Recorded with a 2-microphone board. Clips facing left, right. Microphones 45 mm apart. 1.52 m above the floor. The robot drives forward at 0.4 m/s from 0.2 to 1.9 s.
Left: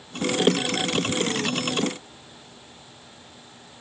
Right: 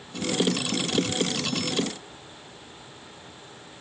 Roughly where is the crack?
No crack in this recording.